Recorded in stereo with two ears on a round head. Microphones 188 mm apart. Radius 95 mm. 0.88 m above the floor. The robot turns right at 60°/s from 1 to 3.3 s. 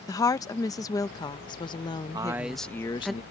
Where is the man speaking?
25° right; by 3.2 s 40° left.